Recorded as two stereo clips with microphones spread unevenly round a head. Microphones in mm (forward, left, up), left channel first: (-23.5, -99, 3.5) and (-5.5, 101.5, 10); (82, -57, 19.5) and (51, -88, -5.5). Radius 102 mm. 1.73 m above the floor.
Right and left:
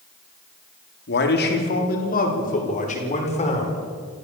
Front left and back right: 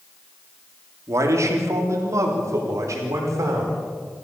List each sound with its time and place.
1.1 s a man speaking: 130° right, 3.5 m; by 3.8 s 155° right, 6 m